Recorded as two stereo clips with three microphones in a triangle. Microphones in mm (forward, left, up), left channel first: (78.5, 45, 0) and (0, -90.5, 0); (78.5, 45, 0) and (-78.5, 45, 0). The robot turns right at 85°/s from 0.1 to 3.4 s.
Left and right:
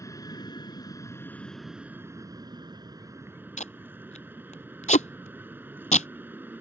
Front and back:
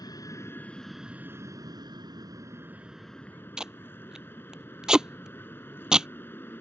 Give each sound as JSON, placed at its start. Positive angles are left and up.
{"t": 0.0, "sound": "an aircraft", "azimuth_deg": 20}
{"t": 3.6, "sound": "tape being pulled", "azimuth_deg": 95}